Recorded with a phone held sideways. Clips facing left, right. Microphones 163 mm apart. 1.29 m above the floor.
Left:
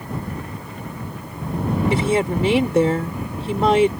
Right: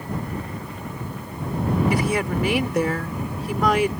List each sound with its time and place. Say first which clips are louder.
1.9 s a woman speaking: left 3 dB; 25° left (ahead or behind)